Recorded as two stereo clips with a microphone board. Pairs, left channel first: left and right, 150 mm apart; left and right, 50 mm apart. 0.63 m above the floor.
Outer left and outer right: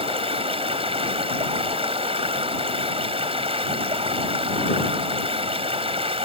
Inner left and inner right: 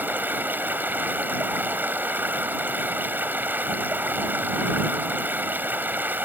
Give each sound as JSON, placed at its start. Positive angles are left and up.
{"t": 0.0, "sound": "running water", "side_deg": -40}